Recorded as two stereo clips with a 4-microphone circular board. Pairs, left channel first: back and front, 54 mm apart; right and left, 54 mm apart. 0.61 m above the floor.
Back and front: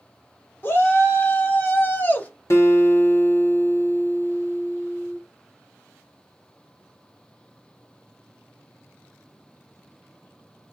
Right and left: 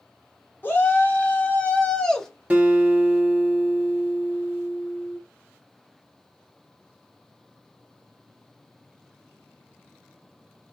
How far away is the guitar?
About 1.1 m.